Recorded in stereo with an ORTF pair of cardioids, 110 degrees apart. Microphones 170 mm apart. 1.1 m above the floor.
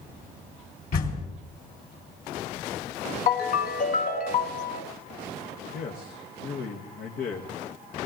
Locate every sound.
0.9 s a door slam: 60° left, 3.5 m
3.3 s a ringtone: 50° left, 1.3 m
5.7 s a man speaking: 65° left, 1.5 m